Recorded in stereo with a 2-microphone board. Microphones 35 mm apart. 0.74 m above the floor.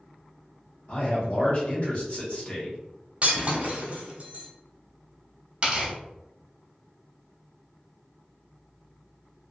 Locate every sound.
0.9 s a man speaking: 40° left (ahead or behind), 1.1 m
3.2 s breaking glass: 40° right (ahead or behind), 1.0 m
5.6 s tearing paper: 35° right (ahead or behind), 1.2 m